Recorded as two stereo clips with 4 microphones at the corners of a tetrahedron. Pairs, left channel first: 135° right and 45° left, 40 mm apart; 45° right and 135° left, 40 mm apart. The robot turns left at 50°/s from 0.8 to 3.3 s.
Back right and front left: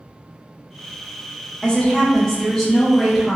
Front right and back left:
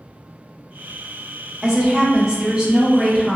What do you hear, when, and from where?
1.6 s a woman speaking: 175° right, 0.6 m; by 3.4 s 100° left, 0.6 m